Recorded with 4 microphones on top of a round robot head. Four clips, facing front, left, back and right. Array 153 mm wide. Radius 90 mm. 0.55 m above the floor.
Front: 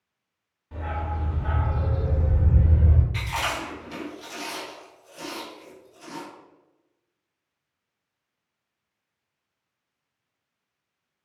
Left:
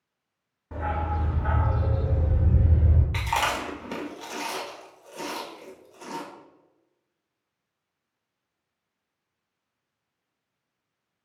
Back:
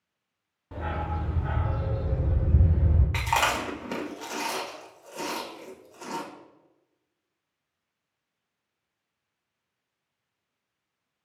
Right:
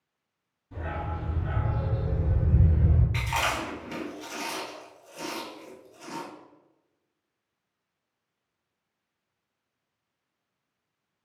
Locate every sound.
0.7 s a dog barking: 115° left, 0.8 m; by 3.0 s 10° left, 1.0 m
3.1 s chewing: 145° left, 1.0 m